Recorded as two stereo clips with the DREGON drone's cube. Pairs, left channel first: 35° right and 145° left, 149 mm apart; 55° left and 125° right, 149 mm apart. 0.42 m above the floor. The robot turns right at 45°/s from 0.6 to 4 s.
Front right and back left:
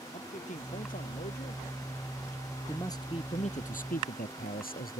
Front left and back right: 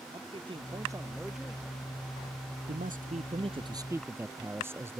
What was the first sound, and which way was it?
A man speaking, 70° right.